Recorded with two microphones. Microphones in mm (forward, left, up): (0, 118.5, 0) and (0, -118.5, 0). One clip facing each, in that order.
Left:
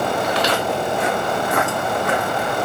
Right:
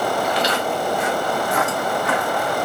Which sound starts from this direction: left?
Footsteps, at 0.2 s.